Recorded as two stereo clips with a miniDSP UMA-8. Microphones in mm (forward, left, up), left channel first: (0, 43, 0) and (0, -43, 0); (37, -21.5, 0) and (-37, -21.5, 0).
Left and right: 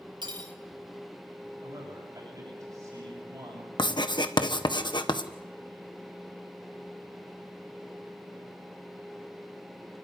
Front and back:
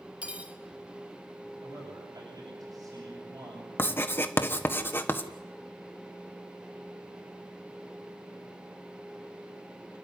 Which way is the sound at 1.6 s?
145° right.